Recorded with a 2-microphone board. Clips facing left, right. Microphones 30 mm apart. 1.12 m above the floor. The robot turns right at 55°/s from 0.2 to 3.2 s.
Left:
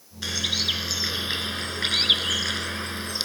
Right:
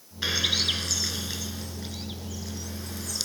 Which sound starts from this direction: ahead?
A bird, at 0.2 s.